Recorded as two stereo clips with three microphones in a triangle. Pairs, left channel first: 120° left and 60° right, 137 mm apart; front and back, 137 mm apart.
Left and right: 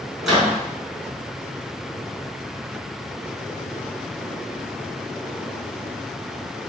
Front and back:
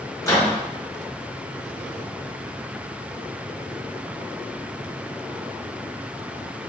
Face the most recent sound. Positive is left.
turn(degrees=25)